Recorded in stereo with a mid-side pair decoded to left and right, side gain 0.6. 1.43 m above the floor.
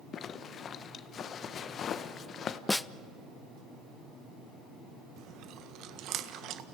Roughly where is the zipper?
Ahead left.